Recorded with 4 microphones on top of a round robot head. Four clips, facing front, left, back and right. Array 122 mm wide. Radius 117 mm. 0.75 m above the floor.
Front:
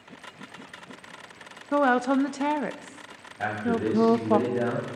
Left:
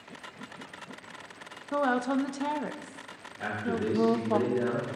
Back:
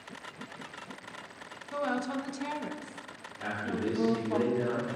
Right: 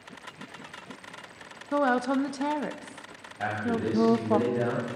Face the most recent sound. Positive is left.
turn(degrees=-30)